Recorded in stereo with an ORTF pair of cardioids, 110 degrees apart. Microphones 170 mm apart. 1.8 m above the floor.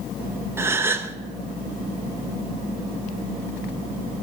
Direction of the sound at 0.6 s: 15° right.